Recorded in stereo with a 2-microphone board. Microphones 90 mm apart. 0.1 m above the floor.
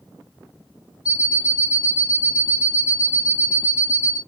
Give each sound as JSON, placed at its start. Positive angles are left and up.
{"t": 1.1, "sound": "an alarm clock", "side_deg": -15, "distance_m": 1.3}